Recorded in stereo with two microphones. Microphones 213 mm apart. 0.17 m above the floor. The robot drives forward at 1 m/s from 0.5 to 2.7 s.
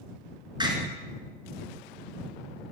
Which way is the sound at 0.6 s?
20° right (ahead or behind).